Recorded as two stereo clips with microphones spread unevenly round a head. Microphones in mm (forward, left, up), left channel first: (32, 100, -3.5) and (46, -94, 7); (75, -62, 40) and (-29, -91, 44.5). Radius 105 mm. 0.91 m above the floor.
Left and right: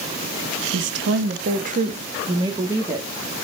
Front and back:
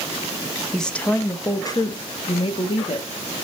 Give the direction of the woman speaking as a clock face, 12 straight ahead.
2 o'clock.